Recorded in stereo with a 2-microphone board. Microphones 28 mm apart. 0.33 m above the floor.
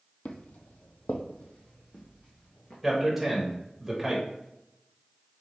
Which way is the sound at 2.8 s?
5° right (ahead or behind).